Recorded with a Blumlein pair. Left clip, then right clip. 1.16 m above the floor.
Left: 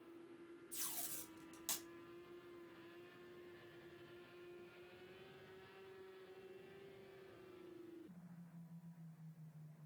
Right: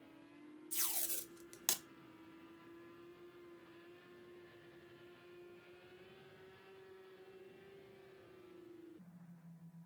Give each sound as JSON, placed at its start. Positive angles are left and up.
{"t": 0.7, "sound": "tape being pulled", "azimuth_deg": -45, "distance_m": 0.5}